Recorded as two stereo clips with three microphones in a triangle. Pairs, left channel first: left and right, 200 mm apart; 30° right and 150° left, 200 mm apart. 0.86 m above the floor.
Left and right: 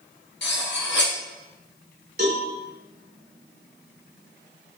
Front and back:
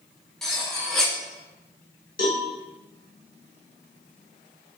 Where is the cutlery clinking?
60° left, 0.5 m.